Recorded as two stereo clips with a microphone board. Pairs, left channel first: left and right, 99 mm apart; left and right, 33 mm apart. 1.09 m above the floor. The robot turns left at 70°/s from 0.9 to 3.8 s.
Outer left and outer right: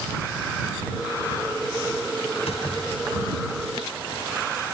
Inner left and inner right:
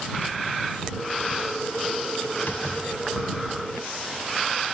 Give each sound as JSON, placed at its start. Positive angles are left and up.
{"t": 2.4, "sound": "a door slam", "azimuth_deg": 100}